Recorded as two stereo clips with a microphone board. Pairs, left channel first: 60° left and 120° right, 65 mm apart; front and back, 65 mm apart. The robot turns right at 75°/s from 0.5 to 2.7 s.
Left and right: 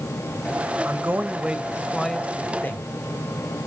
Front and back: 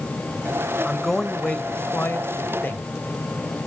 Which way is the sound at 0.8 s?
105° right.